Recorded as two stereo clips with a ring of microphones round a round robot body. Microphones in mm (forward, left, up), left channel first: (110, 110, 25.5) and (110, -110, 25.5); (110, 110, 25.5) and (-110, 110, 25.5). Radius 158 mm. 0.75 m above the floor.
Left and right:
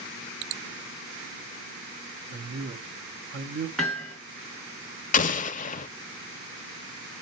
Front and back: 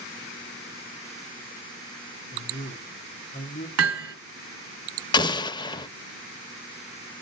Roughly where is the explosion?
Ahead left.